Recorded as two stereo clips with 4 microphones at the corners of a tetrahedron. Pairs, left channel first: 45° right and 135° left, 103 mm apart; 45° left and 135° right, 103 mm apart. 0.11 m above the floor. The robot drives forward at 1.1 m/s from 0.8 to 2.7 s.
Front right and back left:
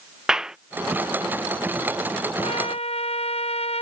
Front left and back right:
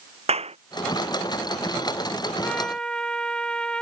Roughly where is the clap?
Behind right.